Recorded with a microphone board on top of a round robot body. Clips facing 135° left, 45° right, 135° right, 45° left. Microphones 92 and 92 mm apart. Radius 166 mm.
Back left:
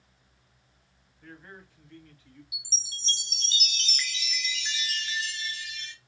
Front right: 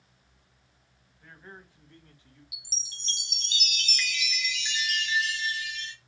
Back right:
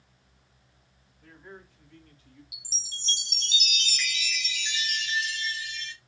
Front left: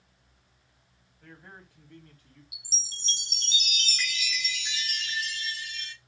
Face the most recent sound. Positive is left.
turn(degrees=85)